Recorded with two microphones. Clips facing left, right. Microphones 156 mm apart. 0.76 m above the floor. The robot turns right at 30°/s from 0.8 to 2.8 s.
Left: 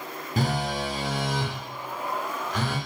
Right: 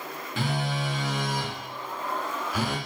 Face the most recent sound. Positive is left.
turn(degrees=-165)